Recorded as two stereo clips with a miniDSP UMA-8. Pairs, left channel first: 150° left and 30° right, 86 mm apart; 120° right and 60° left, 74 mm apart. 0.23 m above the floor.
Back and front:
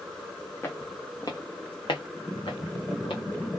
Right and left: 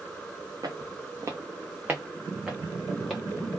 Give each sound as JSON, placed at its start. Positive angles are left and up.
{"t": 0.6, "sound": "footsteps", "azimuth_deg": 85, "distance_m": 0.8}